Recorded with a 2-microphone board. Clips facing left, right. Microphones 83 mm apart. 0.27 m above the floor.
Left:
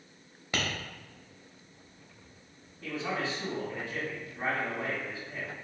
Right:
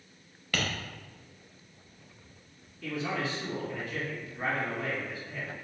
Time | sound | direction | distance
0.5 | tapping | 20° left (ahead or behind) | 0.7 m
2.8 | a man speaking | 30° left (ahead or behind) | 2.0 m